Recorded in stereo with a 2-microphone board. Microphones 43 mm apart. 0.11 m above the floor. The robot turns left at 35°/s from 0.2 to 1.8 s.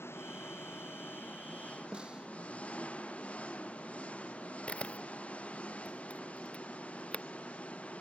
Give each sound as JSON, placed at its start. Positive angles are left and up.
{"t": 0.0, "sound": "an engine running", "azimuth_deg": 90}
{"t": 1.9, "sound": "a snare drum", "side_deg": -20}
{"t": 4.7, "sound": "a camera shutter", "side_deg": 30}